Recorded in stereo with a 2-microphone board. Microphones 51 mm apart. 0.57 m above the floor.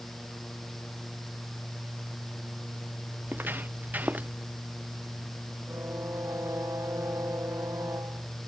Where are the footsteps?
40° right (ahead or behind); by 4.3 s 30° right (ahead or behind).